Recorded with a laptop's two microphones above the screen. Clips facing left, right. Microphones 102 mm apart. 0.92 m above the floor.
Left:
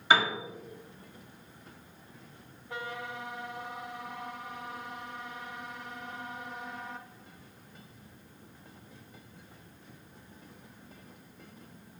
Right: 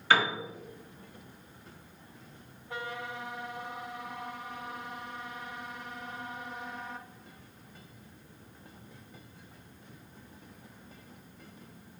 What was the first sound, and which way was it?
A piano, 20° left (ahead or behind).